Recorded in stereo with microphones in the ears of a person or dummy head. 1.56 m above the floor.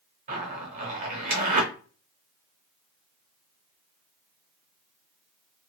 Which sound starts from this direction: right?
A zipper, at 0.3 s.